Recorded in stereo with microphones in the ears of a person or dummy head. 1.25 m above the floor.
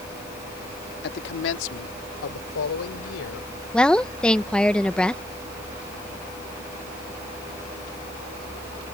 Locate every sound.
1.0 s a man speaking: 60° left (ahead or behind); by 3.5 s 90° left
3.7 s a woman speaking: 5° left (ahead or behind)